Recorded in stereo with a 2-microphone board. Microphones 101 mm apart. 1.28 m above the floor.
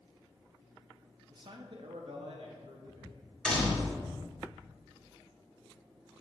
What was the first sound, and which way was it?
A man speaking, 45° right (ahead or behind).